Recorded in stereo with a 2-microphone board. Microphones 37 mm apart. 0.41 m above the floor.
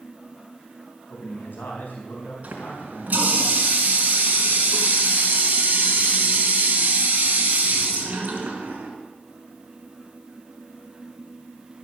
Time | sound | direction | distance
1.1 | a man speaking | 55° left (ahead or behind) | 3.5 m
2.4 | a running tap | 40° right (ahead or behind) | 3 m